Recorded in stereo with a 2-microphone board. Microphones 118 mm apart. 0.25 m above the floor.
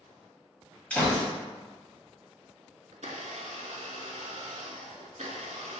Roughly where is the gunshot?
Centre.